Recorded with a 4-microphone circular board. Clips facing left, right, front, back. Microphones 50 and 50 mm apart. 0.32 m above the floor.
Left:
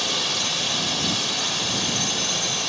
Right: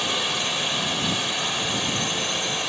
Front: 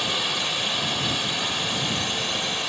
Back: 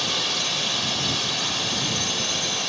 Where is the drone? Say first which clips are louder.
Right 1 dB, front 1 dB; 55° right.